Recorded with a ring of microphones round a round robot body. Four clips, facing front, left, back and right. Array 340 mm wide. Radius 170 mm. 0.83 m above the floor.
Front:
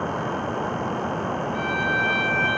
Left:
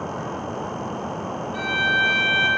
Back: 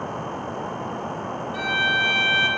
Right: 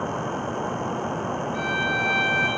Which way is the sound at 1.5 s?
150° left.